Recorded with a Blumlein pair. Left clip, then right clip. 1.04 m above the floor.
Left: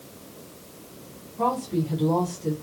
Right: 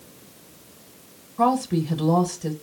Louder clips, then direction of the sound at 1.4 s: Right 4 dB; 30° right.